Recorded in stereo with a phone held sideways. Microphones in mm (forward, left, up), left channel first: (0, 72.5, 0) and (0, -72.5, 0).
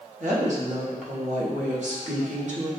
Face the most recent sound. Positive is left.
turn(degrees=-55)  # may be behind; listen again after turning